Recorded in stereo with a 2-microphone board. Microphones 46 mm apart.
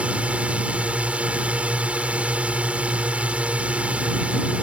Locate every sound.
0.0 s a drone: 25° right (ahead or behind)